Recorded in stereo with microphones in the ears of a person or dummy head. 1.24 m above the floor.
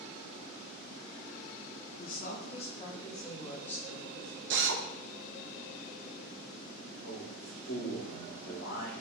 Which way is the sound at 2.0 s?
45° left (ahead or behind).